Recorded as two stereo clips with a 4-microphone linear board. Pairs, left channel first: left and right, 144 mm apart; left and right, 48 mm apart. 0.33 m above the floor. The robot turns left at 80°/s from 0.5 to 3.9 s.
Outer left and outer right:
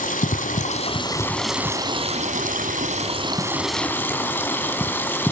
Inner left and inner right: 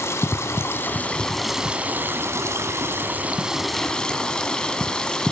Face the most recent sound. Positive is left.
turn(degrees=165)